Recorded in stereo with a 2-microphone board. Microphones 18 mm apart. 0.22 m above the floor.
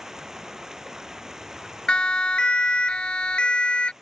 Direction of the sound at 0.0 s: 25° right (ahead or behind).